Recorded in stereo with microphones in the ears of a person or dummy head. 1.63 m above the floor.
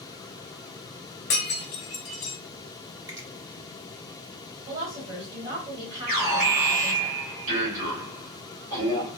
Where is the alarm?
35° right (ahead or behind), 1.5 m.